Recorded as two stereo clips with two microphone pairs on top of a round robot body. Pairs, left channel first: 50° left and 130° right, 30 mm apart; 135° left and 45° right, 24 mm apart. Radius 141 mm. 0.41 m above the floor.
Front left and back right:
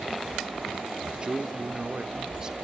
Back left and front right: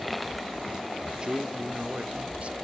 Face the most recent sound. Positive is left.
turn(degrees=-65)